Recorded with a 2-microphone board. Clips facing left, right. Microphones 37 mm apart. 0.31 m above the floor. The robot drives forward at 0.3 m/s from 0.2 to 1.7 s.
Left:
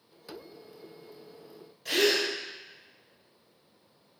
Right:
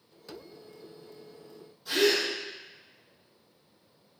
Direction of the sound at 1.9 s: 80° left.